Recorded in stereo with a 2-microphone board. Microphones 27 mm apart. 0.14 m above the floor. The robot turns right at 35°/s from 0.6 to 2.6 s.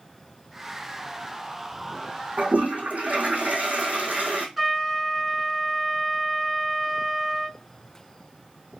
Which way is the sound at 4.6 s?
15° right (ahead or behind).